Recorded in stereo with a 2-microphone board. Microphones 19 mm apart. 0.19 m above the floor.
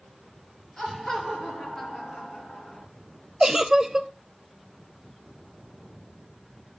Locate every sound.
0.8 s laughter: 25° left (ahead or behind), 4.5 m; by 2.9 s 40° left (ahead or behind), 3.5 m
3.4 s a giggle: 20° right (ahead or behind), 0.6 m